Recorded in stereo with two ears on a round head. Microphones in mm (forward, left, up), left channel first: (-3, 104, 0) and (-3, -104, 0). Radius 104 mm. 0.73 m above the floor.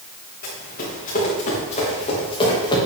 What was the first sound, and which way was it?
Running footsteps, 40° left (ahead or behind).